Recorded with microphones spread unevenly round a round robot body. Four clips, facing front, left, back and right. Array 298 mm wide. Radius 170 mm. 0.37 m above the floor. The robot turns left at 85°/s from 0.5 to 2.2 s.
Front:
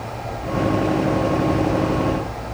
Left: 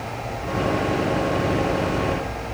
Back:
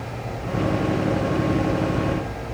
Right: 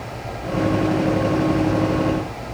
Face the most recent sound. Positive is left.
No sound to turn to.